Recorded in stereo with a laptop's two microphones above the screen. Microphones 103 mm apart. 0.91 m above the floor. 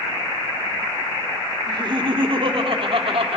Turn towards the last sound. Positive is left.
turn(degrees=-70)  # may be behind; listen again after turning